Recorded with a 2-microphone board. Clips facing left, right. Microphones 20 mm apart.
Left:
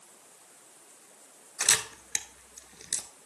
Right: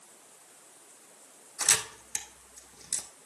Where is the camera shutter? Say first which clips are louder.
Left 1 dB; 35° left (ahead or behind), 0.7 m.